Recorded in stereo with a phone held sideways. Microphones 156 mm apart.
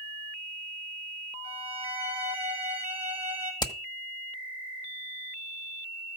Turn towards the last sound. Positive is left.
turn(degrees=25)  # may be behind; listen again after turning